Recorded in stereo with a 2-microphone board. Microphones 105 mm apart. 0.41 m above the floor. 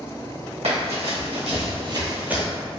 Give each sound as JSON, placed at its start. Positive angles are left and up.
{"t": 0.6, "sound": "running footsteps", "side_deg": -75, "distance_m": 1.7}